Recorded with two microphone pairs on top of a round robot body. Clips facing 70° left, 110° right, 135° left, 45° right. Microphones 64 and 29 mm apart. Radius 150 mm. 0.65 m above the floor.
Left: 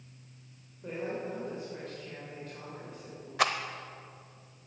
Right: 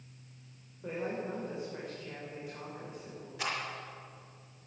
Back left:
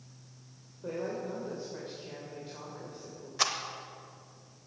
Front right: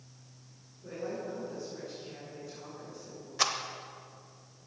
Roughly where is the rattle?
Ahead left.